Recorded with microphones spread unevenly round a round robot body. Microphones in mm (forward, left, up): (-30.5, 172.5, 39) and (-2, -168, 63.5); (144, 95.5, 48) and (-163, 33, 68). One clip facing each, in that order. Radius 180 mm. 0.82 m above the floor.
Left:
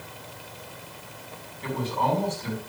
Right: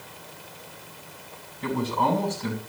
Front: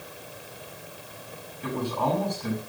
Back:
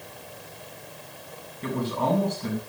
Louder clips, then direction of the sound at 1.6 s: Right 3 dB, back 1 dB; 100° right.